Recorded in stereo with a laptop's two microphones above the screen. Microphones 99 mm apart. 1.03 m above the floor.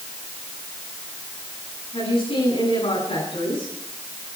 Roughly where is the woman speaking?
Left.